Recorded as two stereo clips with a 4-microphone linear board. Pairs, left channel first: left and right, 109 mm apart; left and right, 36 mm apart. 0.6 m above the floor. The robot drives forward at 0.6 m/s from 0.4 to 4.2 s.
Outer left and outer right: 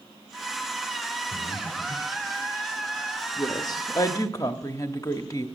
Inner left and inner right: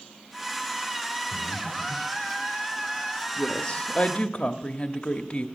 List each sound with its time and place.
1.3 s breathing: 60° left (ahead or behind), 0.9 m; by 2.3 s 40° left (ahead or behind), 1.4 m
3.4 s a woman speaking: 35° left (ahead or behind), 0.8 m; by 5.5 s 30° left (ahead or behind), 0.9 m